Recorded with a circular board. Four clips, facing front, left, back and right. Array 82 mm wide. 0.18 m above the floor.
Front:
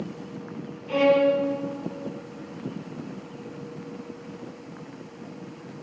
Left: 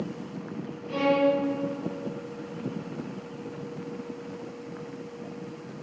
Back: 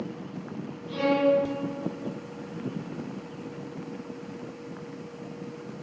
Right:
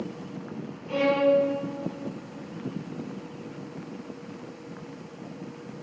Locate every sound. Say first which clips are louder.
0.9 s a violin: right 1 dB, front 4 dB; 20° right, 3.5 m